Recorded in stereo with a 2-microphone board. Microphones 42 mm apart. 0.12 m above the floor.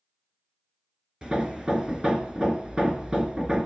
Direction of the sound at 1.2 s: 20° right (ahead or behind).